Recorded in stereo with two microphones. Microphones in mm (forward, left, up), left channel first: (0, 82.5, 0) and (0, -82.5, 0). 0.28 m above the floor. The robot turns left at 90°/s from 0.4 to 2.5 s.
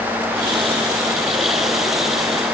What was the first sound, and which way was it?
Only background noise.